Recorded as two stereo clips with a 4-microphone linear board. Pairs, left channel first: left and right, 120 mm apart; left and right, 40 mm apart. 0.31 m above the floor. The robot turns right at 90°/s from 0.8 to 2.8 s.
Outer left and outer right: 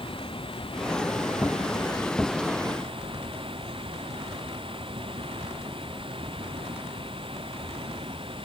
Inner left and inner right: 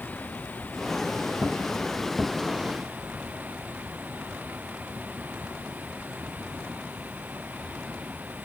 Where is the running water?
45° left; by 8.5 s 135° right.